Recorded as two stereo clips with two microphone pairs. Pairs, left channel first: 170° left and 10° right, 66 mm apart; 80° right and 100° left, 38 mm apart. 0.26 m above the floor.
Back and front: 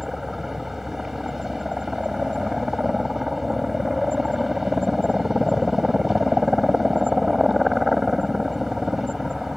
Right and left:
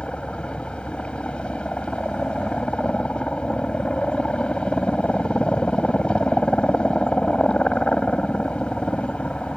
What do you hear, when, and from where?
0.0 s a helicopter: 95° right